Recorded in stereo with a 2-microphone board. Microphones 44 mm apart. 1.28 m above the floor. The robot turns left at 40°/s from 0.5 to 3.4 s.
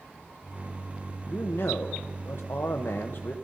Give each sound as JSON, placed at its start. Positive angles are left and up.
{"t": 1.3, "sound": "a man speaking", "azimuth_deg": 125, "distance_m": 0.8}